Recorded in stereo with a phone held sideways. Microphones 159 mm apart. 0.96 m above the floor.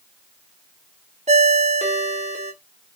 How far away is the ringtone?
About 0.7 m.